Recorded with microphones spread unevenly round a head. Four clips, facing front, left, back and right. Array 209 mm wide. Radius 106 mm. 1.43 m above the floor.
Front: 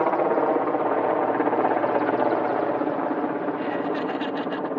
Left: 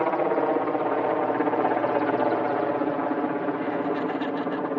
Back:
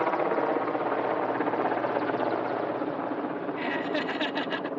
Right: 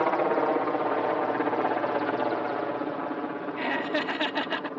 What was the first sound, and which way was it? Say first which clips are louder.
A helicopter: left 1 dB, front 5 dB; 5° right.